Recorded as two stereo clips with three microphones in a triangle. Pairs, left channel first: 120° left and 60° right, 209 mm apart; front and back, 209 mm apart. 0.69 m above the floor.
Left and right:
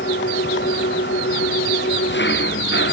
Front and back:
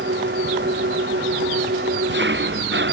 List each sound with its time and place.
0.0 s an engine running: 150° left